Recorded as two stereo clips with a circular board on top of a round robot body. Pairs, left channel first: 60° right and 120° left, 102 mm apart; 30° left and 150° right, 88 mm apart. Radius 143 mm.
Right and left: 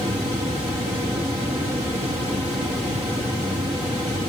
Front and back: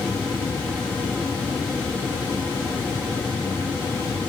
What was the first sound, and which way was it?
Only background noise.